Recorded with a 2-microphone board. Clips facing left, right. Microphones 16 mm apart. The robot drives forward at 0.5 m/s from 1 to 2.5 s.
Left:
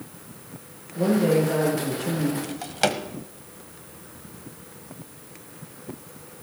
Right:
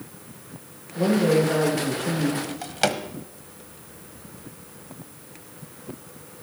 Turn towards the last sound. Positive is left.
turn(degrees=-5)  # may be behind; listen again after turning